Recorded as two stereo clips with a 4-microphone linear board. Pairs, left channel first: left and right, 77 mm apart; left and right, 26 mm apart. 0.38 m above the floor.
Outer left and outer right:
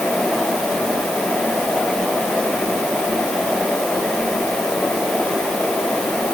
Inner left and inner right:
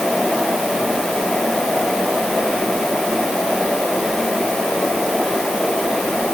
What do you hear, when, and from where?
Only background noise.